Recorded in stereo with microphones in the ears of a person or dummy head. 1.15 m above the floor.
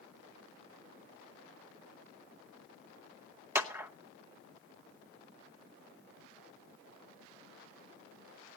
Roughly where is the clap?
Centre.